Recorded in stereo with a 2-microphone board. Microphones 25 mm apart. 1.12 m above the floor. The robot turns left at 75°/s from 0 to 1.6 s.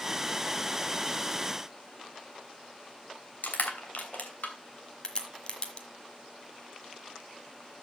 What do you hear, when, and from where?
3.4 s crushing: 80° left, 2.5 m
5.0 s a crack: 35° left (ahead or behind), 1.6 m